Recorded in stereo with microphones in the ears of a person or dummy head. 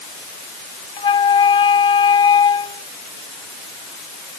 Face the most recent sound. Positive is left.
turn(degrees=25)  # may be behind; listen again after turning